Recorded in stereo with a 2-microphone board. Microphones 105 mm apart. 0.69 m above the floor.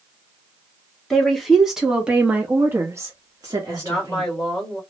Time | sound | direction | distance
1.1 | a woman speaking | 5° left (ahead or behind) | 1.3 m
3.7 | a woman speaking | 5° left (ahead or behind) | 1.5 m